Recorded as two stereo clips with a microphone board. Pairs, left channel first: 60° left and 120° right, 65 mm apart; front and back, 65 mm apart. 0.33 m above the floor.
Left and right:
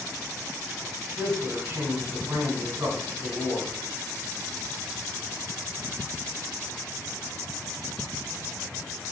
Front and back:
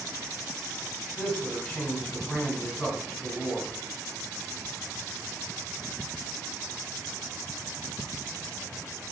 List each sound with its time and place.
1.2 s a man speaking: 80° right, 2.5 m